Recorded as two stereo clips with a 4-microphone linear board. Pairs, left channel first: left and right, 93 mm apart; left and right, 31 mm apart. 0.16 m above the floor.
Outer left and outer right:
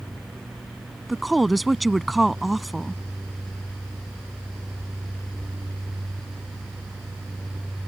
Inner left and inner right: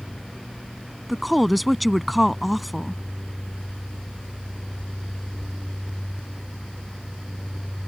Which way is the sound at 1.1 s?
Centre (ahead or behind).